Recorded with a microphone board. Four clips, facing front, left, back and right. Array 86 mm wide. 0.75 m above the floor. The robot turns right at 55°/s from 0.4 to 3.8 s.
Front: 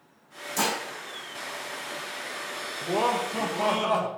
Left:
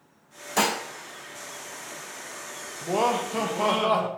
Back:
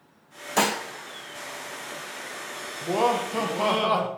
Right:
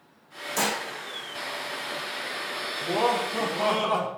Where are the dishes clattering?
150° left, 0.8 m; by 0.8 s 165° left, 0.8 m.